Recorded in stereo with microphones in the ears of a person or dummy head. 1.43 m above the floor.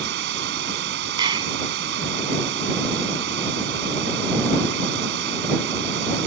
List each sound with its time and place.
0.0 s running water: 60° right (ahead or behind)
1.2 s a clap: 25° right (ahead or behind)